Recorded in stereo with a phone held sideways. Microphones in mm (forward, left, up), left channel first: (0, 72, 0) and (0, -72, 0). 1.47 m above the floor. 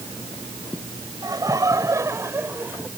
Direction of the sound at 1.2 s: 25° right (ahead or behind).